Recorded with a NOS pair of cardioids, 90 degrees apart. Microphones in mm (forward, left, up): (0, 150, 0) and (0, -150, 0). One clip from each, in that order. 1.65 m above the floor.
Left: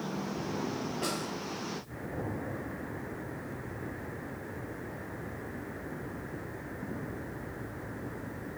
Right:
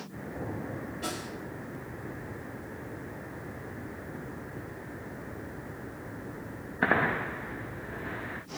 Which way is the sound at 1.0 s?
60° left.